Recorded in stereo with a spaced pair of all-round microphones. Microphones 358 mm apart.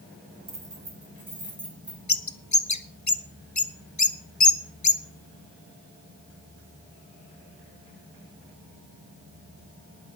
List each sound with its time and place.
0.5 s keys jangling: 65° right (ahead or behind), 2.5 m; by 2.0 s 50° right (ahead or behind), 3.5 m
2.1 s a bird: 50° left (ahead or behind), 0.8 m